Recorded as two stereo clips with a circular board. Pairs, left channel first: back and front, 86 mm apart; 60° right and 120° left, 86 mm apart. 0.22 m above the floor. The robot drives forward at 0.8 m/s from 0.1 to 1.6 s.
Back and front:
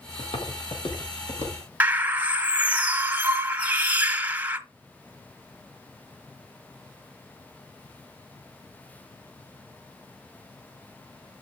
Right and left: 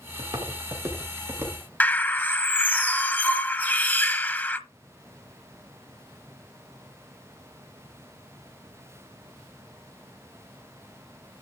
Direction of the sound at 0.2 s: 165° left.